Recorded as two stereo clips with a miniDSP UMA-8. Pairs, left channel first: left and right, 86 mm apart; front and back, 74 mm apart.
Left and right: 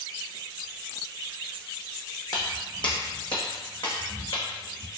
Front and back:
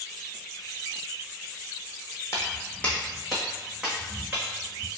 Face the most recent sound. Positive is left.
turn(degrees=115)